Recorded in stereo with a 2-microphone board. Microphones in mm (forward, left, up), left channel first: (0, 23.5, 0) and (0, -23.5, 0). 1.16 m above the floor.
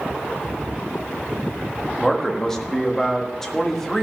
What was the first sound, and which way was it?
A man speaking, 10° left (ahead or behind).